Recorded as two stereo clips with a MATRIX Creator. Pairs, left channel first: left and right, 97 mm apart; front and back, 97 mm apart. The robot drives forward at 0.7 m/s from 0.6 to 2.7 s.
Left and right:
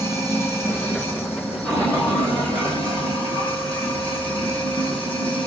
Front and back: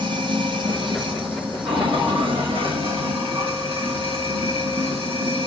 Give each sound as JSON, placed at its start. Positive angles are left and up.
{"t": 0.0, "sound": "running water", "azimuth_deg": 155, "distance_m": 1.9}